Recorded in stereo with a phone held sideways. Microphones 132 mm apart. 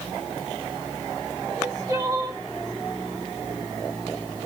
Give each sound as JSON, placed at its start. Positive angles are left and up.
{"t": 1.5, "sound": "crying", "side_deg": -25, "distance_m": 1.2}